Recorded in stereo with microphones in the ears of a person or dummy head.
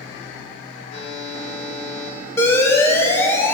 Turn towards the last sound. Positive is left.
turn(degrees=15)  # may be behind; listen again after turning